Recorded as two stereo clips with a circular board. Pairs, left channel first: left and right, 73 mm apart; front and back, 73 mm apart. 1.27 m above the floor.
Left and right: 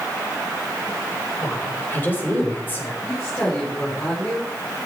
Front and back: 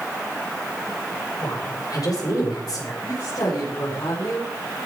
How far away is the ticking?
I don't hear ticking.